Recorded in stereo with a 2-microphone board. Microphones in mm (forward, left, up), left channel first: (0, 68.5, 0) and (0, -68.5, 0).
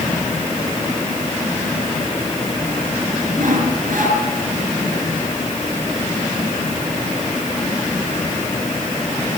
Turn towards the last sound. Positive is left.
turn(degrees=-80)